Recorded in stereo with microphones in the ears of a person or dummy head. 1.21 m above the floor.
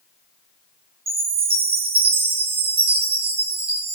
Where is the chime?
30° right (ahead or behind), 2.5 m.